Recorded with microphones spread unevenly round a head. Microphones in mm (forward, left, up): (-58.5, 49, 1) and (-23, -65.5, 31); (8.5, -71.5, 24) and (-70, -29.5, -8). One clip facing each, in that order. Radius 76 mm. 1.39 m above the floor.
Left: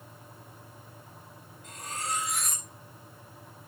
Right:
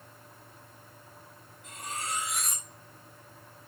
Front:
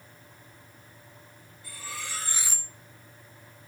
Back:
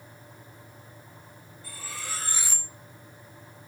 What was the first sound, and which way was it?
Cutlery clinking, 155° right.